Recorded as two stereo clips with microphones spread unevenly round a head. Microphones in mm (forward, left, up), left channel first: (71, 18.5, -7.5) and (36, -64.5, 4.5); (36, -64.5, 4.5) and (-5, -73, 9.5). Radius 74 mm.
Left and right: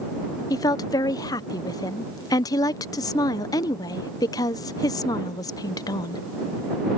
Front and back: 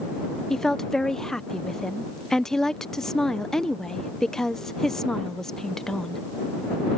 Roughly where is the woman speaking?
Left.